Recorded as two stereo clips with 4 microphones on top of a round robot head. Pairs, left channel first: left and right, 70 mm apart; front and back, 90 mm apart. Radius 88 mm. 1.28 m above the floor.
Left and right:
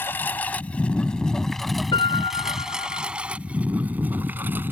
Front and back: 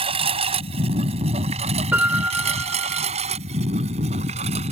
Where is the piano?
110° left.